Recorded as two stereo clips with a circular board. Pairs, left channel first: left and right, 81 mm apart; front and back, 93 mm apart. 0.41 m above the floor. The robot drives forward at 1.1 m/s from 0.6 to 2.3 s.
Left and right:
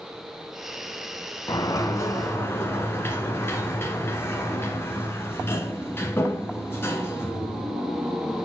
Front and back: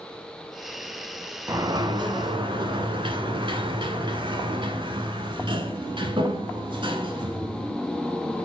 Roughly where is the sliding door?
Behind left.